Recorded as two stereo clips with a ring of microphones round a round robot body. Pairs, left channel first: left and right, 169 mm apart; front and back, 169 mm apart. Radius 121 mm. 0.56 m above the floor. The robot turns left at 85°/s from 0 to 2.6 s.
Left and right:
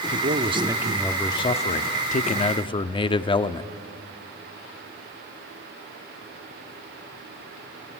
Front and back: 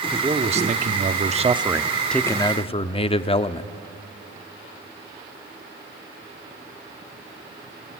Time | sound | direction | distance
0.1 | a man speaking | 105° right | 0.8 m